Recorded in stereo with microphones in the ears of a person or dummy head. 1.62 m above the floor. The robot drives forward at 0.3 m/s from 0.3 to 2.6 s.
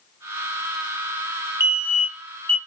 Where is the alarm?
15° left (ahead or behind), 1.2 m; by 2.6 s 20° left (ahead or behind), 1.0 m.